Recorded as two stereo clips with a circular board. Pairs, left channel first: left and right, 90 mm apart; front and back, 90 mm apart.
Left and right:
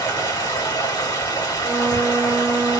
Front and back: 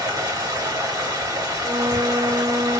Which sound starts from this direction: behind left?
Running water, at 0.0 s.